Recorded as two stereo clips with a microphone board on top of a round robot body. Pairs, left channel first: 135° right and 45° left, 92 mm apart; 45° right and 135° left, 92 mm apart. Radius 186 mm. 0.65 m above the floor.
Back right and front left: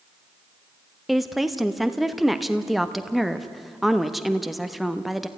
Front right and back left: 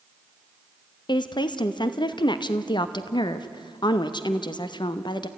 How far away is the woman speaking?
About 1.3 m.